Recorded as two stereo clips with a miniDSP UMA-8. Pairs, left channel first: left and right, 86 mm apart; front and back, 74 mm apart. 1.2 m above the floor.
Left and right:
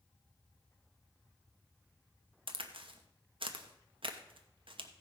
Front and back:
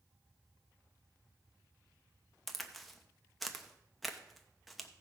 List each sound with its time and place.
2.5 s a crack: 85° right, 1.0 m